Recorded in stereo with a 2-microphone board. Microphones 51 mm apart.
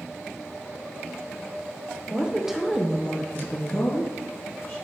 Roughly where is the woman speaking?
Centre.